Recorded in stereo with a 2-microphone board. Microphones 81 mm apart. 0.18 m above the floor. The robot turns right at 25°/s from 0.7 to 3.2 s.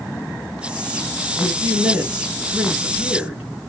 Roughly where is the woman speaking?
Centre.